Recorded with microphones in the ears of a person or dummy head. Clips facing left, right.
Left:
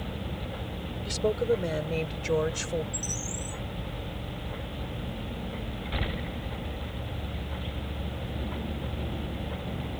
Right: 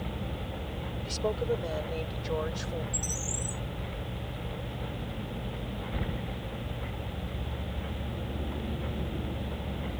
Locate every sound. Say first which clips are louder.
1.1 s a woman speaking: left 4 dB; 25° left (ahead or behind); by 2.8 s 45° left (ahead or behind)
2.9 s a bird: left 1 dB; 20° right (ahead or behind)